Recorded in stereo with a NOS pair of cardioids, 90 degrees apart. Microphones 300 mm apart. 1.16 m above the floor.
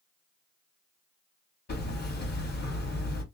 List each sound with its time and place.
1.7 s hammering: 35° left, 1.6 m